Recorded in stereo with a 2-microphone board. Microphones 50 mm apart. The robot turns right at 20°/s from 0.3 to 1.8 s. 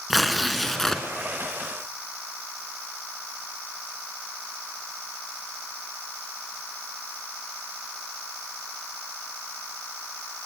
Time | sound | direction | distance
0.1 | tearing paper | centre (ahead or behind) | 2 m